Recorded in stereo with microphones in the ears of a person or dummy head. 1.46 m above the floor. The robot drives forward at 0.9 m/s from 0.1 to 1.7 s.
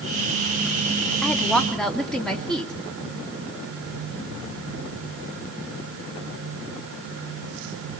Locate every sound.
1.2 s a woman speaking: centre (ahead or behind), 2 m